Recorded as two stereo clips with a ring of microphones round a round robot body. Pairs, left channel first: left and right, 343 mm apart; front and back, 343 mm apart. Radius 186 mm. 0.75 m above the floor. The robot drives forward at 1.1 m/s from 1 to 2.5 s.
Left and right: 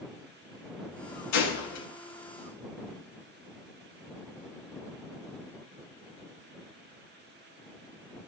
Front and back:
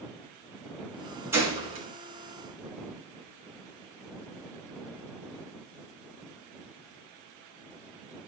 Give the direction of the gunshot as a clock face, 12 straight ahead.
9 o'clock.